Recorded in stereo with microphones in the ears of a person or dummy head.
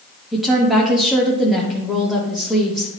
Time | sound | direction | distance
0.3 | a woman speaking | 5° left (ahead or behind) | 0.9 m